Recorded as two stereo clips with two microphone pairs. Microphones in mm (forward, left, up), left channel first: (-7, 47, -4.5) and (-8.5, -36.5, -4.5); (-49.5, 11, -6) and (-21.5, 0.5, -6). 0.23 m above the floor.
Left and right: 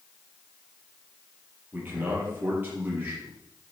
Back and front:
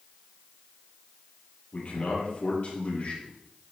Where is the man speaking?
160° right, 6 m.